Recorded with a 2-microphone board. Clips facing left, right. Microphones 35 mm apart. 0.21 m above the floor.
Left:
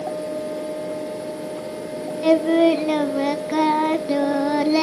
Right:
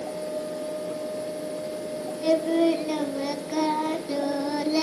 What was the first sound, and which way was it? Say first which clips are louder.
Singing: left 6 dB; 40° left (ahead or behind).